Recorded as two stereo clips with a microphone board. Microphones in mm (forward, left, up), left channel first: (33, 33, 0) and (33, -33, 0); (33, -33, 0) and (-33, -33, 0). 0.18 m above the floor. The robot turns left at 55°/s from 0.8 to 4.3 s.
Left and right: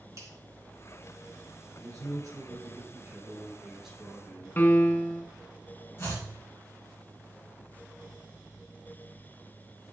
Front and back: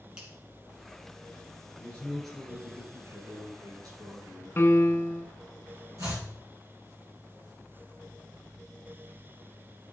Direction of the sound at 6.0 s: 145° left.